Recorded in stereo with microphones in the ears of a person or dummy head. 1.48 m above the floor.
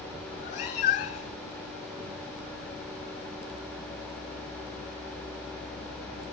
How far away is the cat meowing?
About 1.9 m.